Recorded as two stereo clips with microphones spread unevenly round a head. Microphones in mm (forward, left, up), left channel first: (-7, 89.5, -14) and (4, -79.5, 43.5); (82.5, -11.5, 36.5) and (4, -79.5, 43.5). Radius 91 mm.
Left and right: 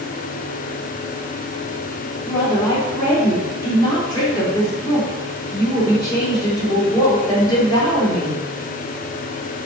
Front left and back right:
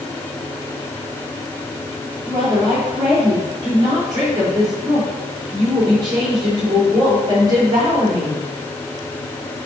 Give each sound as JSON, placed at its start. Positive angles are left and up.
{"t": 2.2, "sound": "a woman speaking", "azimuth_deg": 160, "distance_m": 3.5}